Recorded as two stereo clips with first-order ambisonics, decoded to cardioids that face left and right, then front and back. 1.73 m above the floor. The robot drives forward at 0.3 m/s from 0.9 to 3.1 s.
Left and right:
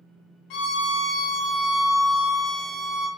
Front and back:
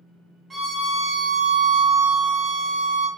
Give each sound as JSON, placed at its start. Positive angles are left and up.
{"t": 0.5, "sound": "a violin", "azimuth_deg": 105, "distance_m": 0.5}